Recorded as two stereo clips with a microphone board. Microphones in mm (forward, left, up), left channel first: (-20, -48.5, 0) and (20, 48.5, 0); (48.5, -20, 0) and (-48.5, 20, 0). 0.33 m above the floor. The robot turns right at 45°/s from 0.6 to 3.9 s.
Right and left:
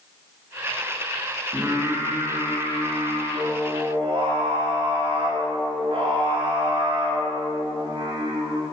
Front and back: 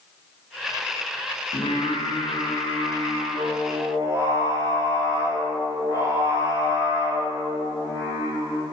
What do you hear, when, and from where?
1.5 s singing: 10° right, 1.6 m; by 8.6 s 95° left, 1.6 m